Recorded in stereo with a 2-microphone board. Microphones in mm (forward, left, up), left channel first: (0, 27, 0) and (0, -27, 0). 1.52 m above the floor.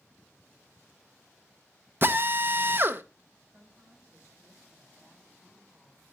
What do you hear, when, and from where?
2.0 s a drill: 45° right (ahead or behind), 0.8 m
3.5 s a woman speaking: 40° right (ahead or behind), 8 m